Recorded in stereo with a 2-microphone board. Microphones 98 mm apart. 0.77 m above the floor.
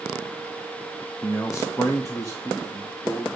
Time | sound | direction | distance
1.2 | a man speaking | 30° left (ahead or behind) | 0.8 m